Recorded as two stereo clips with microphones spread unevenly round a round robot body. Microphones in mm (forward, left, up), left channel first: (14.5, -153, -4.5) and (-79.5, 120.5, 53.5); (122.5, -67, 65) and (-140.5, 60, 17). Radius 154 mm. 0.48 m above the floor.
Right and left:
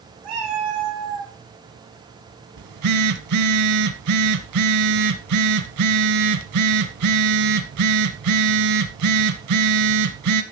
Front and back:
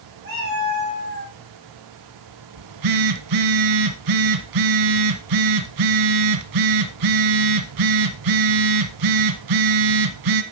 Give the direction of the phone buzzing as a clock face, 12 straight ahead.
8 o'clock.